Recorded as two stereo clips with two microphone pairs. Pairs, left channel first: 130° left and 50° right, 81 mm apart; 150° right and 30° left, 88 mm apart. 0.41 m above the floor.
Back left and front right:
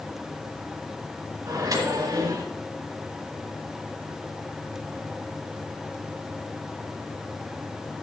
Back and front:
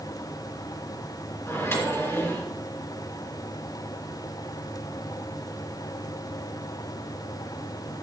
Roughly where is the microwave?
Right.